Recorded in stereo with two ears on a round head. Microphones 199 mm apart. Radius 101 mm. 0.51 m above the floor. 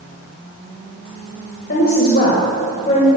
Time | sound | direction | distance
1.7 | a woman speaking | 50° left (ahead or behind) | 2.5 m